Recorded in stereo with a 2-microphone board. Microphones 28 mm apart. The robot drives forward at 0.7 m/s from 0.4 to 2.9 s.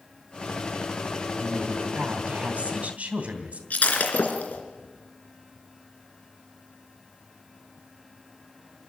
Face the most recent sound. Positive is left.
turn(degrees=70)  # may be behind; listen again after turning